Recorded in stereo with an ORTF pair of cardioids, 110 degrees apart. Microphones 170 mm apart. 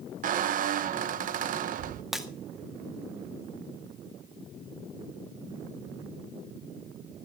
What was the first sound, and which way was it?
A squeak, 55° right.